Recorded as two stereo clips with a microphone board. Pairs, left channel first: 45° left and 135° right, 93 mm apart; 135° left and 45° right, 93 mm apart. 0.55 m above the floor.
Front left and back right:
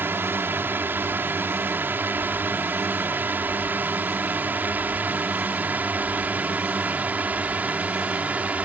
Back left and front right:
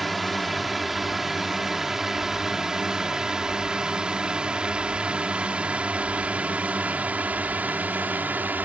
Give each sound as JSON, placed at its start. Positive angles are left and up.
{"t": 0.0, "sound": "a drone", "azimuth_deg": -135}